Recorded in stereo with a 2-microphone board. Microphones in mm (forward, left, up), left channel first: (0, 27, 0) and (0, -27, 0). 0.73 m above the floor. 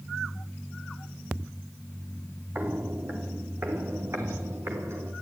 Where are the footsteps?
35° right (ahead or behind), 2.0 m; by 5.1 s 55° right (ahead or behind), 4.5 m.